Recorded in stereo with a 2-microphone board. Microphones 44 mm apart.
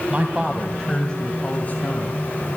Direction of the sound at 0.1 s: 25° right (ahead or behind).